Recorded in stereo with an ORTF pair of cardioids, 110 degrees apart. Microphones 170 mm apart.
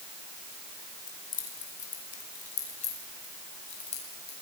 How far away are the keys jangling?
About 4 m.